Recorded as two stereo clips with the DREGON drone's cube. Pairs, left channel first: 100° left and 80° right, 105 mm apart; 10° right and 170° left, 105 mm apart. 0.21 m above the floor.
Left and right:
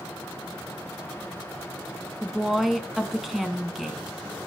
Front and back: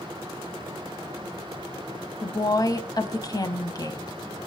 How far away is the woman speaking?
About 1.3 m.